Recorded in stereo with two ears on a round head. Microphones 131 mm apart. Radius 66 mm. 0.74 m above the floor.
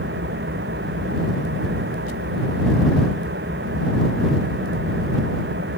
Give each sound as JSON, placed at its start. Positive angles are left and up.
{"t": 0.0, "sound": "an engine running", "side_deg": -85}